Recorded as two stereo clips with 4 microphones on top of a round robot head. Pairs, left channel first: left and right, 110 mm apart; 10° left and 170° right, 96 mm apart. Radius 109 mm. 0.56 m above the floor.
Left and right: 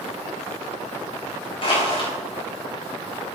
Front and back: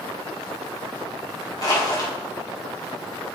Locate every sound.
1.6 s crushing: 55° left, 4 m